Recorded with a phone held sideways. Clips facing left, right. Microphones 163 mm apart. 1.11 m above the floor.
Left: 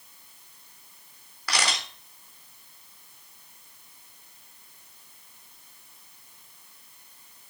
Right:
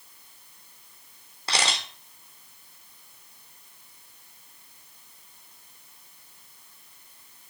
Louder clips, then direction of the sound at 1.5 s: Right 1 dB; 25° right (ahead or behind).